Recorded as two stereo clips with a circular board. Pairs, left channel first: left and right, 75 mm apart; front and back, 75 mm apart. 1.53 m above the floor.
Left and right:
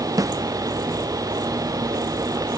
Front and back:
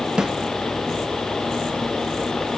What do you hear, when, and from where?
0.2 s a snare drum: 100° right, 0.6 m